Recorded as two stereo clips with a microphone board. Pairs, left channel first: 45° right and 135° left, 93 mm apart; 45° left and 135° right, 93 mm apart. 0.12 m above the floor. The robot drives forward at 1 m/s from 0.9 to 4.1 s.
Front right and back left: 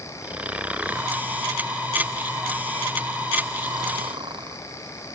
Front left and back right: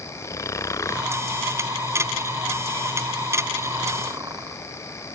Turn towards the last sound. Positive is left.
turn(degrees=170)